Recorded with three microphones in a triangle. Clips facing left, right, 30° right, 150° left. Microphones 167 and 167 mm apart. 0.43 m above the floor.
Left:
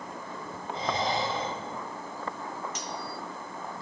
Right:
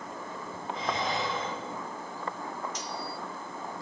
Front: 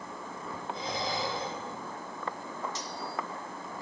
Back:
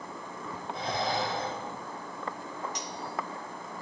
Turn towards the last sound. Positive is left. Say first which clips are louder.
# even, even
turn(degrees=80)